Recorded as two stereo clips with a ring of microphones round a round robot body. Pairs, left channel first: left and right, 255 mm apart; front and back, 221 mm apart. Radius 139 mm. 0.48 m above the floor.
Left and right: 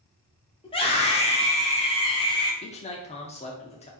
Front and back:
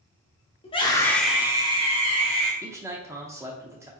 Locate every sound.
0.6 s a scream: 35° left, 1.5 m; by 2.5 s 160° left, 2.0 m
2.6 s a man speaking: 115° left, 0.8 m